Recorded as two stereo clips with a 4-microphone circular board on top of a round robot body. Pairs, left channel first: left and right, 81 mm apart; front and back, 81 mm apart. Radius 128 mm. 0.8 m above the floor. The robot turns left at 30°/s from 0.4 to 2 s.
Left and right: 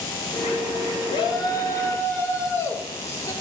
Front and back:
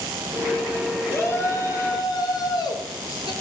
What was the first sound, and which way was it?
A shout, 65° left.